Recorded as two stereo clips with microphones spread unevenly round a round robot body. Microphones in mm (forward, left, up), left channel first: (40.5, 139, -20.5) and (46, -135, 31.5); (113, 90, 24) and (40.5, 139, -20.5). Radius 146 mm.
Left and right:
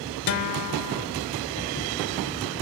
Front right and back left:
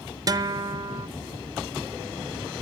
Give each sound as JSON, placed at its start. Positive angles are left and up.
{"t": 0.3, "sound": "a guitar", "azimuth_deg": 110, "distance_m": 0.7}